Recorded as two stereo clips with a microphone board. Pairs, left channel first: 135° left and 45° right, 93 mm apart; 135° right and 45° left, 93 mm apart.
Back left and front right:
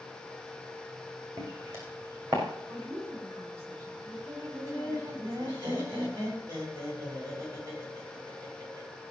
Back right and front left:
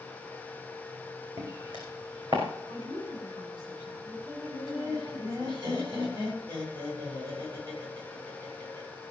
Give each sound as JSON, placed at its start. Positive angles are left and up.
{"t": 1.4, "sound": "footsteps", "azimuth_deg": 15, "distance_m": 4.0}
{"t": 2.7, "sound": "a woman speaking", "azimuth_deg": 15, "distance_m": 6.5}
{"t": 4.5, "sound": "laughter", "azimuth_deg": 15, "distance_m": 6.5}